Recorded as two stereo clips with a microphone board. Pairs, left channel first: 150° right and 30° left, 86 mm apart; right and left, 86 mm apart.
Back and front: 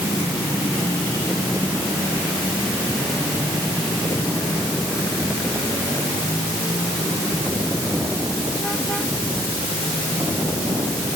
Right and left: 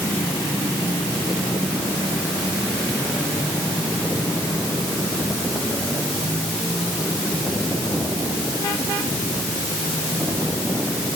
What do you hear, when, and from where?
Only background noise.